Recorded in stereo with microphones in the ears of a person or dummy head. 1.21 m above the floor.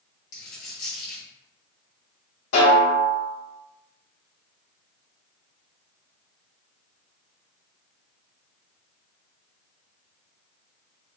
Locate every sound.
0.3 s a dropped coin: 40° left (ahead or behind), 0.9 m
2.5 s a snare drum: 55° left (ahead or behind), 1.7 m